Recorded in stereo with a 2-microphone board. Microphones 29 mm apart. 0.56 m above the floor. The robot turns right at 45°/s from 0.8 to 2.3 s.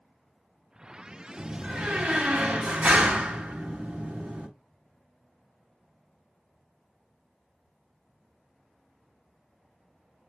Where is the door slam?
130° right, 1.1 m; by 4.5 s 90° right, 1.1 m.